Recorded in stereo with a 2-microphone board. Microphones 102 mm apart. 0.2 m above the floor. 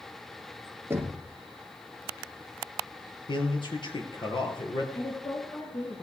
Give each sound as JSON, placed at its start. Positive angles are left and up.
{"t": 0.9, "sound": "knocking", "side_deg": -25, "distance_m": 2.0}
{"t": 3.3, "sound": "a man speaking", "side_deg": 50, "distance_m": 3.5}
{"t": 5.0, "sound": "a woman speaking", "side_deg": 40, "distance_m": 3.0}